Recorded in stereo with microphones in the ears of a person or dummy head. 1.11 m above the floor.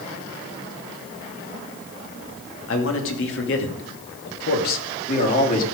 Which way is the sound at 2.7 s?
75° left (ahead or behind).